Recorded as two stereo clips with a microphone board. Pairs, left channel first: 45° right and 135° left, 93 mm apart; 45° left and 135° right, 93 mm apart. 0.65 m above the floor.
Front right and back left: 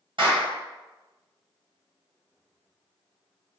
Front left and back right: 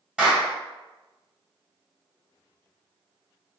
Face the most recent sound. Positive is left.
turn(degrees=145)